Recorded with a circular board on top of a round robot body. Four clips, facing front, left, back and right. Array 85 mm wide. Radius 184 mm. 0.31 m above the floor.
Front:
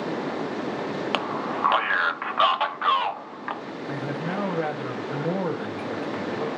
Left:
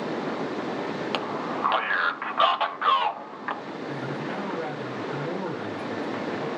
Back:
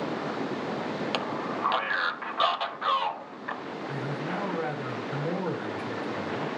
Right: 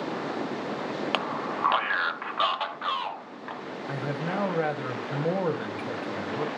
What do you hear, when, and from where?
1.1 s a man speaking: 35° right, 1.6 m; by 3.6 s 45° left, 2 m
3.9 s a man speaking: 60° right, 2.5 m